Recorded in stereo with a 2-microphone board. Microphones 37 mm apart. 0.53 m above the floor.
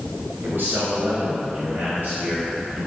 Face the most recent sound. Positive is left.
turn(degrees=-50)  # may be behind; listen again after turning